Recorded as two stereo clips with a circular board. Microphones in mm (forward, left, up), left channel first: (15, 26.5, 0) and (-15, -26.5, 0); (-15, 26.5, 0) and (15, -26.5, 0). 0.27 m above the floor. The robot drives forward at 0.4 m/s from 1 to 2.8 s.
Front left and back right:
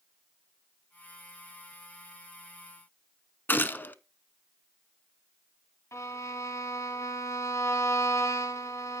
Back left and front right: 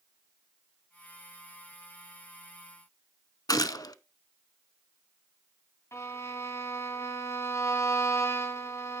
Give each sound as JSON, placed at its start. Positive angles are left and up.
{"t": 3.5, "sound": "a gunshot", "azimuth_deg": 120, "distance_m": 0.6}
{"t": 5.9, "sound": "a violin", "azimuth_deg": 90, "distance_m": 2.0}